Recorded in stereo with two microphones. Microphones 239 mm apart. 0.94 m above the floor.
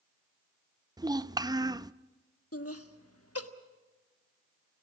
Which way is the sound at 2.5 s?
75° left (ahead or behind).